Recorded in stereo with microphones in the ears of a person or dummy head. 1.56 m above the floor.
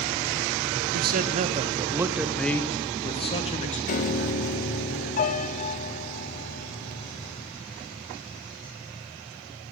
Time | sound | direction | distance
0.9 | a man speaking | 60° right (ahead or behind) | 0.9 m
3.9 | a piano | 45° left (ahead or behind) | 0.7 m